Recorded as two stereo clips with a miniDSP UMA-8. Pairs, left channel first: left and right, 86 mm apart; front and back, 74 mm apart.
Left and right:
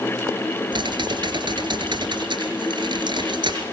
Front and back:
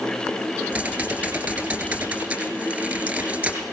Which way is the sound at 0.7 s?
115° right.